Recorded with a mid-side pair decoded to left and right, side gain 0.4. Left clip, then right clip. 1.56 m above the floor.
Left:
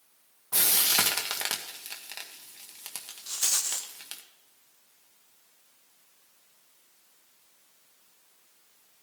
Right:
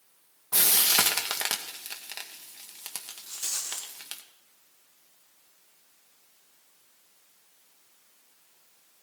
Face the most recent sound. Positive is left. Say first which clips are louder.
# left 5 dB
turn(degrees=65)